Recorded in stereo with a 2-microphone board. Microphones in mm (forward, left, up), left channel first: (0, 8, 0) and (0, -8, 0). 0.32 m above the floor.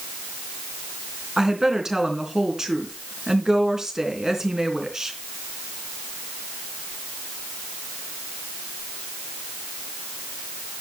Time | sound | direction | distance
1.4 | a woman speaking | 45° right (ahead or behind) | 3 m